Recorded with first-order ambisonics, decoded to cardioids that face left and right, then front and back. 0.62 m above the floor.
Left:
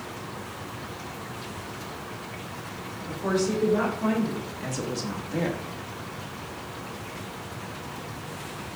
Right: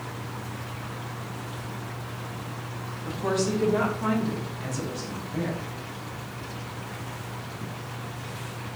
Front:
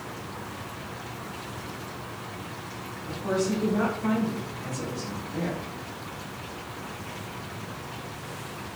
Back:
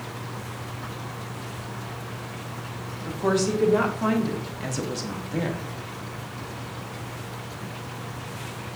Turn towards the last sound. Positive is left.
turn(degrees=120)